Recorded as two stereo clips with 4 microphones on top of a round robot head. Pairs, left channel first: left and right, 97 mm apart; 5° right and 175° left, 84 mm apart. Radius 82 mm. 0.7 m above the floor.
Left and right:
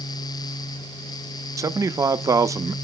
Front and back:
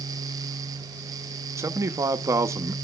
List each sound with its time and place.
1.6 s a man speaking: 140° right, 0.7 m